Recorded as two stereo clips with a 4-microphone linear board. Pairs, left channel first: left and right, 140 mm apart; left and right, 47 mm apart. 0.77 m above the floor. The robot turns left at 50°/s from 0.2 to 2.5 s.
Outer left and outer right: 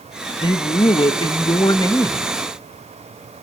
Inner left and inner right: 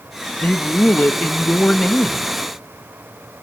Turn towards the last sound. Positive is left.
turn(degrees=5)